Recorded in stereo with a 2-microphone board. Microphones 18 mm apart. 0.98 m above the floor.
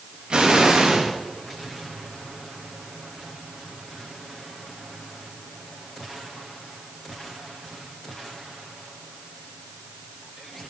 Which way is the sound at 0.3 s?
60° right (ahead or behind).